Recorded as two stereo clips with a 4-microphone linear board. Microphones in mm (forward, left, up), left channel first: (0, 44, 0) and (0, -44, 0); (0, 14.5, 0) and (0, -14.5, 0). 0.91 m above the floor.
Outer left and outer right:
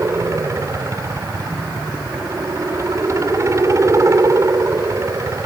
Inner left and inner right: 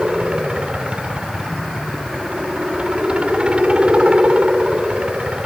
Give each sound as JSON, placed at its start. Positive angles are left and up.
{"t": 0.0, "sound": "a helicopter", "side_deg": -35}